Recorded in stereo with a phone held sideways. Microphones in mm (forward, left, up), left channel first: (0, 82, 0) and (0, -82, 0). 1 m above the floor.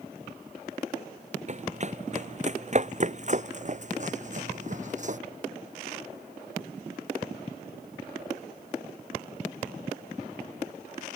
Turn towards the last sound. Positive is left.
turn(degrees=-50)  # may be behind; listen again after turning